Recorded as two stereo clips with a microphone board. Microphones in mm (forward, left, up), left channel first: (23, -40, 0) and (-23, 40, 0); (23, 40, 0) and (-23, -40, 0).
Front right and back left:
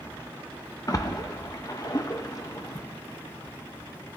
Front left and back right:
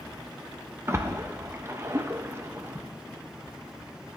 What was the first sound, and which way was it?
A splash, 75° right.